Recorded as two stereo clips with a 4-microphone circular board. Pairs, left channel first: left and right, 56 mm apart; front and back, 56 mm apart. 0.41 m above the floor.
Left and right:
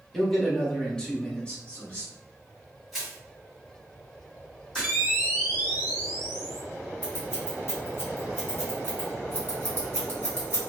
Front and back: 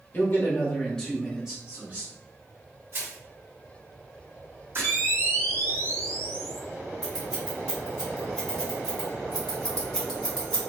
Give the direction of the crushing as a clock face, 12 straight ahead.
6 o'clock.